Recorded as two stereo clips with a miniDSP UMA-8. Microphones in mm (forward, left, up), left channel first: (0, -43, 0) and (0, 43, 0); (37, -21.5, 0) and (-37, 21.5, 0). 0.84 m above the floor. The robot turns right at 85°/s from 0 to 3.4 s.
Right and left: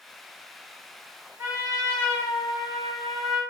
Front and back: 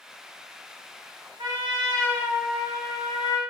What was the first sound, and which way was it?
A trumpet, 145° left.